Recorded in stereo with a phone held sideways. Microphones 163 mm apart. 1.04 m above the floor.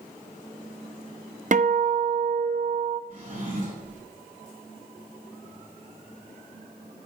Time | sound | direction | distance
1.5 | a guitar | 50° right (ahead or behind) | 0.6 m
3.1 | a drawer | 55° right (ahead or behind) | 5 m